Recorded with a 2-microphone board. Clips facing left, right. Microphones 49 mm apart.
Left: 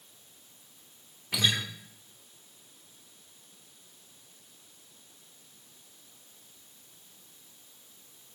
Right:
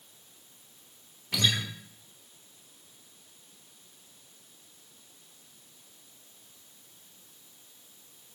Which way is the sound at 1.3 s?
5° left (ahead or behind).